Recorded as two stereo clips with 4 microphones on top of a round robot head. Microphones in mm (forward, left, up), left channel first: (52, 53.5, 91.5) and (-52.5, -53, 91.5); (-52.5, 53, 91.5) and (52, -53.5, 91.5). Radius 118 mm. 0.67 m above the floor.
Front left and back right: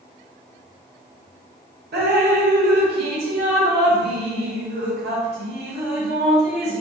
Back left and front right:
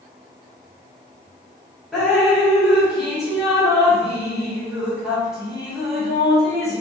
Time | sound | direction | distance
1.9 | dripping | 130° right | 1.1 m